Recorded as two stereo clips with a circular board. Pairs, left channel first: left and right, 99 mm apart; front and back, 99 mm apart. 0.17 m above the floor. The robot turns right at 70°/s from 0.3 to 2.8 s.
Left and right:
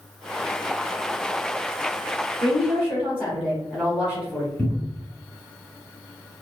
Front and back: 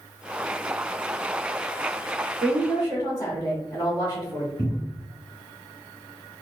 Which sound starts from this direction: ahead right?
A woman speaking, at 2.4 s.